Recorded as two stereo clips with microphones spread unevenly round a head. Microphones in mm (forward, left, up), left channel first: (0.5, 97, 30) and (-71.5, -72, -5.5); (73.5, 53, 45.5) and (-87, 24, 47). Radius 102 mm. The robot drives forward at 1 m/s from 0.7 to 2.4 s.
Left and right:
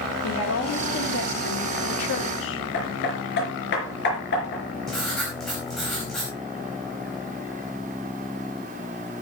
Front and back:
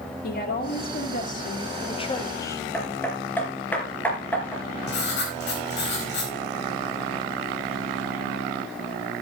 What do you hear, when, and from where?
0.2 s a woman speaking: 40° left, 2.5 m; by 2.6 s 80° left, 1.7 m
2.7 s hammering: 90° left, 4.5 m
4.9 s writing: 20° right, 4.5 m